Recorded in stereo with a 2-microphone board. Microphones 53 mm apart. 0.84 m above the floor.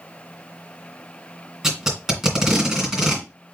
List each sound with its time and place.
1.6 s tape being pulled: 10° right (ahead or behind), 2 m